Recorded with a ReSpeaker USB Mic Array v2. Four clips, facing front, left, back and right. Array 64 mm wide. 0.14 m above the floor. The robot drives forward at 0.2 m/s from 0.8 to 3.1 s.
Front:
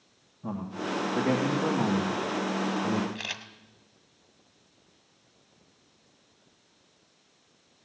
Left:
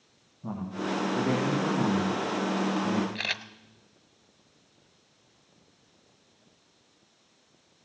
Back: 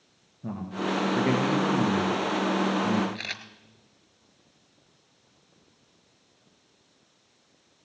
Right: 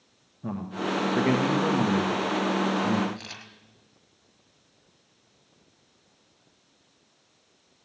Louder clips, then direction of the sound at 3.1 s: Left 8 dB, back 1 dB; 105° left.